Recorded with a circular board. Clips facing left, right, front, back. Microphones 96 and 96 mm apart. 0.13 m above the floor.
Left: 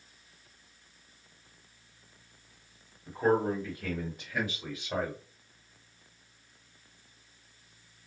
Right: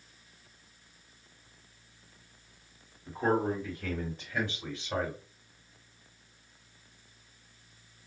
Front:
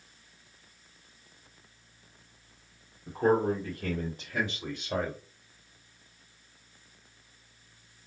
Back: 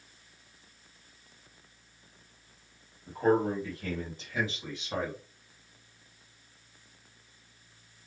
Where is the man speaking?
10° left, 2.5 m.